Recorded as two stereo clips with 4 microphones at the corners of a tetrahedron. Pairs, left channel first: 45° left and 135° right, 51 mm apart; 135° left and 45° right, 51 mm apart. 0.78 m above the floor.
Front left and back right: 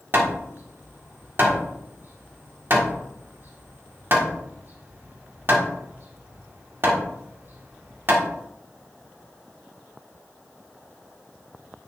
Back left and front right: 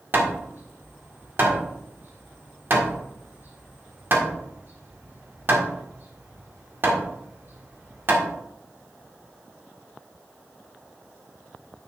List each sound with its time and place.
0.1 s hammering: 90° right, 1.7 m